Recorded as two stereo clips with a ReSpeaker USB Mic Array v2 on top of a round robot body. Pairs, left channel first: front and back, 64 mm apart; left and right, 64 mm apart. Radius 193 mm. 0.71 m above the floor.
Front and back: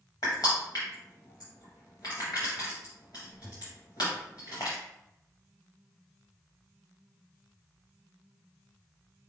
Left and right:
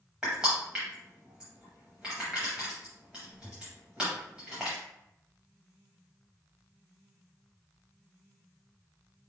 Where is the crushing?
15° right, 0.5 m.